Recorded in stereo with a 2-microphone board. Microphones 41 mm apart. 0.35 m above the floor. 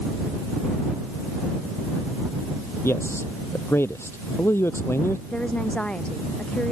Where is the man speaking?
75° left (ahead or behind).